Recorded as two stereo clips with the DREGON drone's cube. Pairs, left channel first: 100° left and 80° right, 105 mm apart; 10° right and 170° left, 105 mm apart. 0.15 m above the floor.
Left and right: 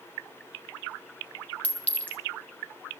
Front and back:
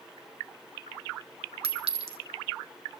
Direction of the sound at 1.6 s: 175° left.